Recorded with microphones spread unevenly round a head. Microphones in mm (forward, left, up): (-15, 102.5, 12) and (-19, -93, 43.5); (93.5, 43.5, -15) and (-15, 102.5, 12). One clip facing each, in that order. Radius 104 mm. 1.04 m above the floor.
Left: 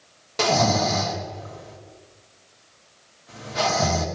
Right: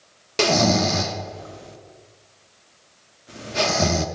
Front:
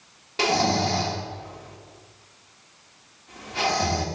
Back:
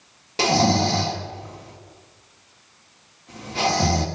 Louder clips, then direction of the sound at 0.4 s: Right 2 dB, back 3 dB; 145° right.